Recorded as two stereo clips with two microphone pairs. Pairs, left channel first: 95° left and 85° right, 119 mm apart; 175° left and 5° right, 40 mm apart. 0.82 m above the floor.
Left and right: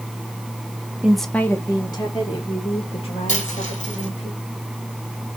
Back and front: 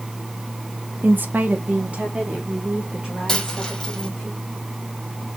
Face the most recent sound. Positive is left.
turn(degrees=95)